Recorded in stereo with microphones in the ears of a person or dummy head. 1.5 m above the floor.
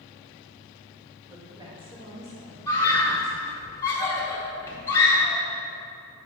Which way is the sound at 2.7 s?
20° left (ahead or behind).